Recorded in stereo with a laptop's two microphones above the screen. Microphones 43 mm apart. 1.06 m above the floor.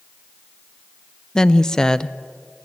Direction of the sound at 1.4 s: 15° left (ahead or behind).